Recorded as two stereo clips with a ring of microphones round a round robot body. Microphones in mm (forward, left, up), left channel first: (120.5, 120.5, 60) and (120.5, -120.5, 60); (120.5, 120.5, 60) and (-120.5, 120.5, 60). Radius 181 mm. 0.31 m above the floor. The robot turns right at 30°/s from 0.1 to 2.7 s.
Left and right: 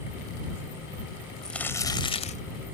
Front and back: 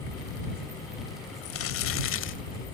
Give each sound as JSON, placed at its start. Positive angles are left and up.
{"t": 1.4, "sound": "crumpling", "azimuth_deg": 0}